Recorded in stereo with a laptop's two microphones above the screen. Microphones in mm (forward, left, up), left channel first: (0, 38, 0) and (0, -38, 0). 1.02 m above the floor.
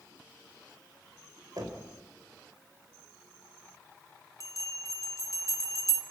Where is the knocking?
60° right (ahead or behind), 3 m.